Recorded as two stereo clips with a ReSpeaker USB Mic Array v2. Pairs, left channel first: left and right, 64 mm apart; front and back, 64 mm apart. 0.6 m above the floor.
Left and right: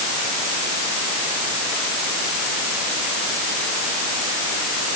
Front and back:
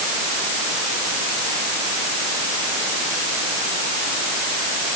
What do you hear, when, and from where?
Only background noise.